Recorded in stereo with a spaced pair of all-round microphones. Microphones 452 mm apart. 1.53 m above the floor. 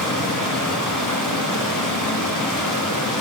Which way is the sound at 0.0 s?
45° left (ahead or behind).